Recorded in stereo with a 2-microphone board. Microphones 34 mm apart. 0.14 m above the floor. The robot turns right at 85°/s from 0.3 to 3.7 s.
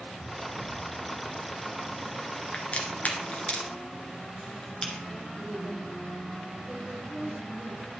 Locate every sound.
2.5 s a crack: 40° left (ahead or behind), 1.8 m; by 5.0 s 25° left (ahead or behind), 1.8 m
5.4 s a woman speaking: 45° right (ahead or behind), 2.5 m